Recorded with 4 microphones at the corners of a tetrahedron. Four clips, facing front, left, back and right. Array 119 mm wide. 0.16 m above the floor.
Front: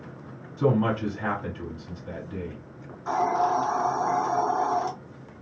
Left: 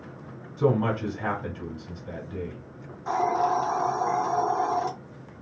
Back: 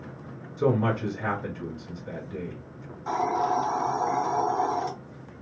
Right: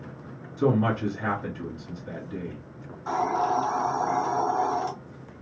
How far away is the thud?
I don't hear a thud.